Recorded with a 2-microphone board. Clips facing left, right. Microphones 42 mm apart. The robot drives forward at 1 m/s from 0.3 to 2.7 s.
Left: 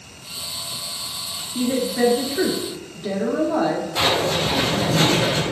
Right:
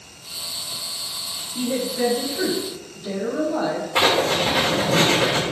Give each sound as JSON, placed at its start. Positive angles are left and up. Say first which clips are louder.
{"t": 1.6, "sound": "a woman speaking", "louder": "left 3 dB", "side_deg": 65, "distance_m": 2.0}
{"t": 4.0, "sound": "writing", "louder": "right 4 dB", "side_deg": -55, "distance_m": 2.0}